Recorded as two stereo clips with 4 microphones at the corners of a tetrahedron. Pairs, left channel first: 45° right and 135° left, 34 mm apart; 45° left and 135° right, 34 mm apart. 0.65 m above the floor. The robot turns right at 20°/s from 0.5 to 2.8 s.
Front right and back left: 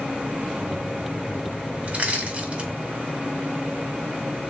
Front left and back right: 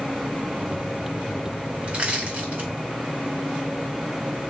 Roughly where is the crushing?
Behind.